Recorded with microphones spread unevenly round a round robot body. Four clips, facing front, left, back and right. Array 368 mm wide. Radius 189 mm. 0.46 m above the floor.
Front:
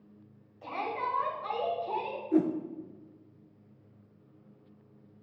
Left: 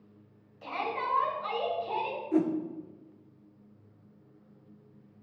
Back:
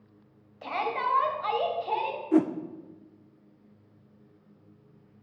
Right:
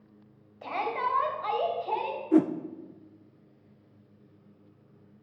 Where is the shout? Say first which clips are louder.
Right 3 dB, back 4 dB; 155° right, 2.5 m.